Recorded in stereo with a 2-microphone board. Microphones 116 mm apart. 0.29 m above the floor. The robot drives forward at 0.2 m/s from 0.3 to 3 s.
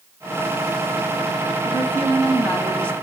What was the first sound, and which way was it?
A woman speaking, 15° left (ahead or behind).